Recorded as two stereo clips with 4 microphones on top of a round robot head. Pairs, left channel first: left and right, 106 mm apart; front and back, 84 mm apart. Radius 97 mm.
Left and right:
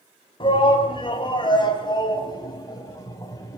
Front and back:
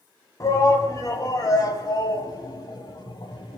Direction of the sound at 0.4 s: 50° left.